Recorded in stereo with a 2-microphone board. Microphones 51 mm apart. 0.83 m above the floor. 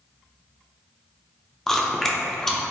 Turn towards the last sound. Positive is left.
turn(degrees=5)  # may be behind; listen again after turning